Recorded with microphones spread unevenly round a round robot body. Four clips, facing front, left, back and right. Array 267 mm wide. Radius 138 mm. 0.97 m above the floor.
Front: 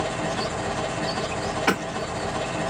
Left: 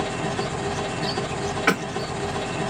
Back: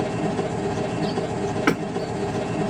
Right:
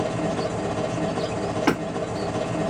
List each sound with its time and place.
0.0 s an engine running: 140° right, 1.1 m
1.7 s hammering: 145° right, 1.7 m